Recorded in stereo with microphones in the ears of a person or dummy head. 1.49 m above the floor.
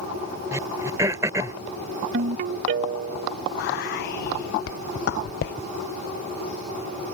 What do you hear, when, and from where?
0.5 s throat clearing: 15° right (ahead or behind)
2.1 s a ringtone: 40° right (ahead or behind)
3.6 s whispering: 65° left (ahead or behind)